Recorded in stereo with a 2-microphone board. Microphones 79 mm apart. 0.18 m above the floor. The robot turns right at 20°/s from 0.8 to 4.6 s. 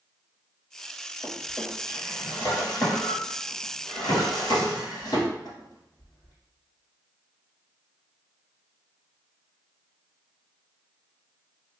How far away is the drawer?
About 1.7 m.